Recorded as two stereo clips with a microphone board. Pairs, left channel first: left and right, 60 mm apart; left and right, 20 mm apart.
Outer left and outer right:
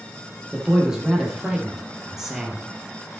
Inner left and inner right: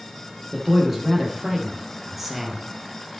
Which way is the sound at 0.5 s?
10° right (ahead or behind).